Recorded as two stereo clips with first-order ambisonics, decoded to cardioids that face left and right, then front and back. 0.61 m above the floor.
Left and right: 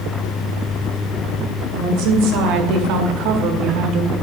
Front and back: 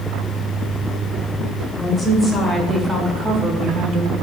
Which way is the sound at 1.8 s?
75° right.